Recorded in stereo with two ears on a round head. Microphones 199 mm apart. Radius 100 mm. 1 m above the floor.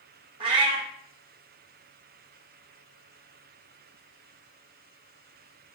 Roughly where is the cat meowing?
Right.